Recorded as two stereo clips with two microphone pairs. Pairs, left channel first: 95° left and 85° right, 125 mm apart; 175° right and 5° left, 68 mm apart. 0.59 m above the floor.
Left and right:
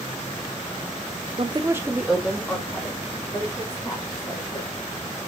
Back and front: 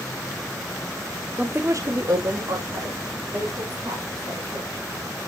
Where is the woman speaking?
65° right, 0.9 m; by 4.8 s 25° left, 5 m.